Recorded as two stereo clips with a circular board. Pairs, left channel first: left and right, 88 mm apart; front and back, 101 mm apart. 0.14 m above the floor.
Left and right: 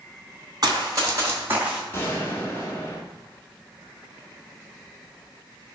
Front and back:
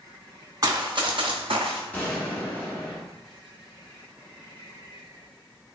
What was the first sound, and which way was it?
Running footsteps, 130° right.